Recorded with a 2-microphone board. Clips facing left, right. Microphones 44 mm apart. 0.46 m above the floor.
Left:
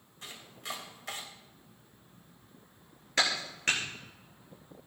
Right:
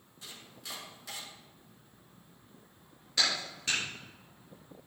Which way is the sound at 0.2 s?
45° left (ahead or behind).